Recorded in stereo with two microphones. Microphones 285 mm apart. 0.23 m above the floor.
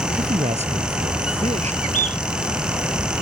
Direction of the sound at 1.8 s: 60° left (ahead or behind).